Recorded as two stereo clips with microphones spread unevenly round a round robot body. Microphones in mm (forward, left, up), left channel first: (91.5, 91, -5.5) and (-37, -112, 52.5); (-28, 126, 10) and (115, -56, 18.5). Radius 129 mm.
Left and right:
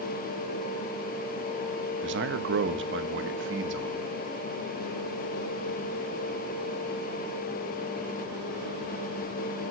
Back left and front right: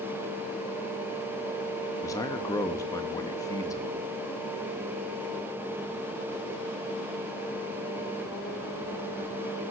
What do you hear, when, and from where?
2.0 s a man speaking: 160° right, 1.1 m